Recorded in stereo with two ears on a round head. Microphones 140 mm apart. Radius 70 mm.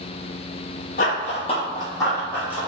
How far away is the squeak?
No squeak in this recording.